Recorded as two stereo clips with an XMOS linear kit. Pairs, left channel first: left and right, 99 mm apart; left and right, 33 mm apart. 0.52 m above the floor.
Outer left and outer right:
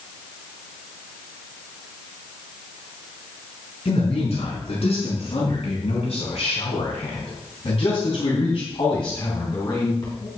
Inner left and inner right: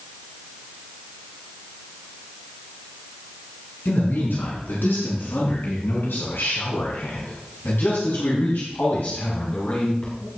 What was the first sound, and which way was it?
A man speaking, 75° left (ahead or behind).